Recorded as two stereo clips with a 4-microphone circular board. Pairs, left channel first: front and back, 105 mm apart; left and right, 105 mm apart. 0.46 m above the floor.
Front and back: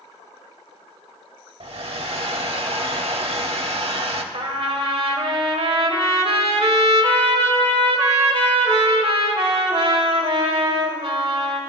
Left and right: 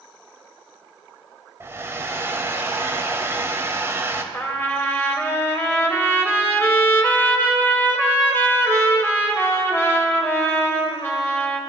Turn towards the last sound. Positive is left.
turn(degrees=155)